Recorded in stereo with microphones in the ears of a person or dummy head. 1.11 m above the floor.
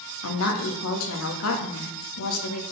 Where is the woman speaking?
70° left (ahead or behind), 1.5 m.